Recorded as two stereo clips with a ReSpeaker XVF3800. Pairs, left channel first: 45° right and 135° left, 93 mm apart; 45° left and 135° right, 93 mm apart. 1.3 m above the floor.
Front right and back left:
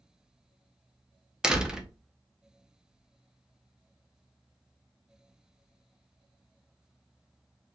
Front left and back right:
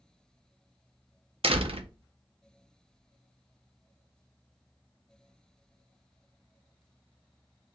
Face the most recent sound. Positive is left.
turn(degrees=-145)